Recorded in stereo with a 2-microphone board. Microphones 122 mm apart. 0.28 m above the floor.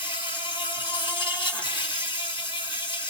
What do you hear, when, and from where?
0.0 s an insect: 45° left (ahead or behind), 4 m